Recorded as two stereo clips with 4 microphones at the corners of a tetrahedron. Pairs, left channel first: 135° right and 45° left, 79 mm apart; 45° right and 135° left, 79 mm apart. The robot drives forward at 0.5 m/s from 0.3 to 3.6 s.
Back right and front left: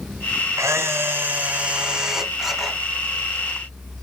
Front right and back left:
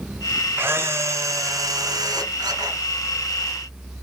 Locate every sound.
0.6 s a camera shutter: 85° left, 1.2 m; by 2.8 s 135° left, 1.6 m